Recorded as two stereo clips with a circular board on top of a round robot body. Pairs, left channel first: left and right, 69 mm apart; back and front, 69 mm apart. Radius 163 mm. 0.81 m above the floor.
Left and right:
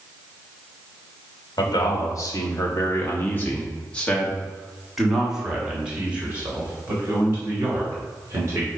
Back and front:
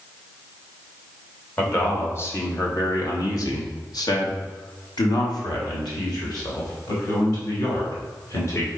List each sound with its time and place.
1.6 s a man speaking: 120° left, 2.0 m; by 8.7 s 140° right, 3 m